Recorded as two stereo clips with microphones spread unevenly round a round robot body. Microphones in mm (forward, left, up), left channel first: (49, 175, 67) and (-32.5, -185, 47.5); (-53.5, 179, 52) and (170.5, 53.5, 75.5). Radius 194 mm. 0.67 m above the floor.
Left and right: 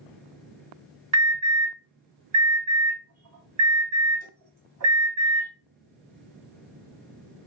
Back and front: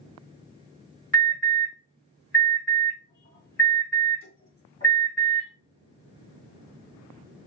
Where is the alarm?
145° right, 2.0 m.